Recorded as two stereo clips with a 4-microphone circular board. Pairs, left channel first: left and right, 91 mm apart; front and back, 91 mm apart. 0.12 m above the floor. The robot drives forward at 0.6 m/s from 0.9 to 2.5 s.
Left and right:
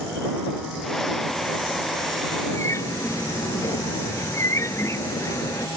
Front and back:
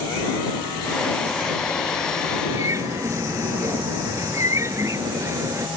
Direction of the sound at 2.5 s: 135° left.